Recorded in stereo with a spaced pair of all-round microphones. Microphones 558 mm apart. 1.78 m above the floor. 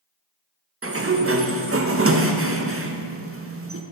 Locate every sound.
0.8 s a sliding door: 25° right (ahead or behind), 0.5 m